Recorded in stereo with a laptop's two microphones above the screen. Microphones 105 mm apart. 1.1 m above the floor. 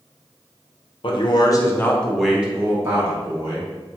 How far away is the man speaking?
About 0.7 m.